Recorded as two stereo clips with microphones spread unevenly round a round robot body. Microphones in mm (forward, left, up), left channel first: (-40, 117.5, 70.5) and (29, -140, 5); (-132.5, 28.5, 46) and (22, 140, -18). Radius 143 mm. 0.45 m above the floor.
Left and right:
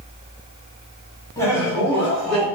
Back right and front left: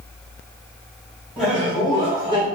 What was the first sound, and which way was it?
Laughter, 10° left.